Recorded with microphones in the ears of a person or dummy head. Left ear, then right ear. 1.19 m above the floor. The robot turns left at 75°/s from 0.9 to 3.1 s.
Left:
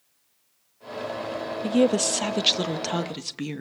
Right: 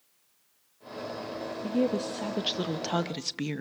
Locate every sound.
1.6 s a woman speaking: 100° left, 1.0 m; by 3.6 s 10° right, 1.0 m